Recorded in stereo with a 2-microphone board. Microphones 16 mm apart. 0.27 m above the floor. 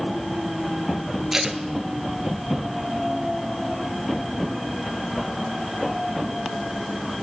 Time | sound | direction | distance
1.3 | tape being pulled | 20° right (ahead or behind) | 1.6 m